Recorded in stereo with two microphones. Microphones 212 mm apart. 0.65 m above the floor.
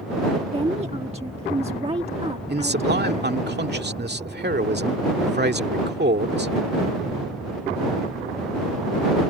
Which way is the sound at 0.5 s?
30° right (ahead or behind).